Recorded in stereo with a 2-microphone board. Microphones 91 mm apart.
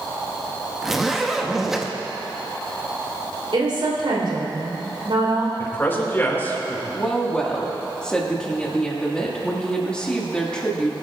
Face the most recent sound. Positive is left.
turn(degrees=10)  # may be behind; listen again after turning